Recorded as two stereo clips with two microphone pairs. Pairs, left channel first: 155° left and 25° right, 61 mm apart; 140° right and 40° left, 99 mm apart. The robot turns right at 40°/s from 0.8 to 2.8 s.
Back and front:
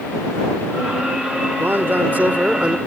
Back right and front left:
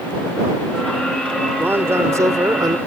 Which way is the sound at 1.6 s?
15° right.